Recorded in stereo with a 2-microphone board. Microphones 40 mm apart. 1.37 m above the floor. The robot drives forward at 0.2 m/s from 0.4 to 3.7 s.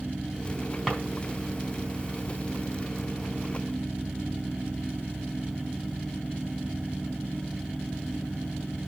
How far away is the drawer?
About 3.5 m.